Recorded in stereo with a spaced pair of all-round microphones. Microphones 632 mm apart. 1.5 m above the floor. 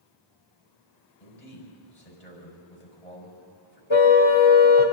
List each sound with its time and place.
1.2 s a man speaking: 70° left (ahead or behind), 6 m
3.9 s a car horn: 45° left (ahead or behind), 2.5 m